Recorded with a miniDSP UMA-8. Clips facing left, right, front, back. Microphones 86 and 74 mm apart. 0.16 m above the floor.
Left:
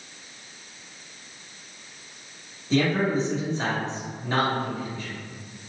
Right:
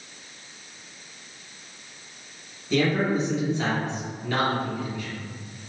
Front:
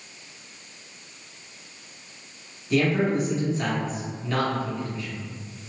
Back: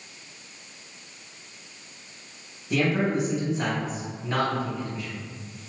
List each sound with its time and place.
2.7 s a man speaking: 125° left, 1.7 m